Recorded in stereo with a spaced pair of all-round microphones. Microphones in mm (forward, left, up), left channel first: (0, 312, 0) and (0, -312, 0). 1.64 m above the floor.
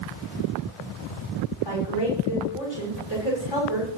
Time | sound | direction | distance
1.6 | a woman speaking | 40° left (ahead or behind) | 6.5 m